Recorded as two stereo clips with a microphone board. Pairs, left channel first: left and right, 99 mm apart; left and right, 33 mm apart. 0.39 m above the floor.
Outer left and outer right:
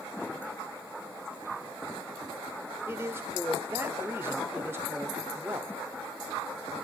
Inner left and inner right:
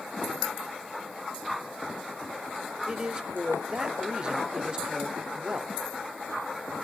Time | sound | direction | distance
2.9 | a man speaking | 25° right (ahead or behind) | 1.0 m